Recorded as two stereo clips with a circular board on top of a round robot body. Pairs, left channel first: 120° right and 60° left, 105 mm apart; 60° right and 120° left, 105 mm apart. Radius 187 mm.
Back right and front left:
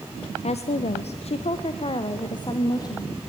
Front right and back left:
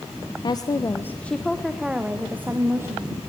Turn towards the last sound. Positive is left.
turn(degrees=-175)